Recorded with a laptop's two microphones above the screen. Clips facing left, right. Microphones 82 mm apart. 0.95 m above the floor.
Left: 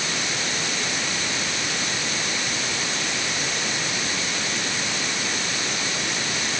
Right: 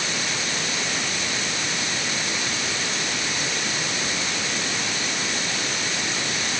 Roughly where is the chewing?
No chewing in this recording.